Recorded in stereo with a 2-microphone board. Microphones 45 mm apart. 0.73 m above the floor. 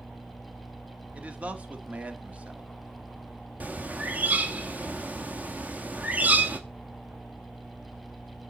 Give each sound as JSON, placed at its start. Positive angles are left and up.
{"t": 1.1, "sound": "a man speaking", "side_deg": -30, "distance_m": 1.4}
{"t": 3.6, "sound": "a bird", "side_deg": -35, "distance_m": 1.1}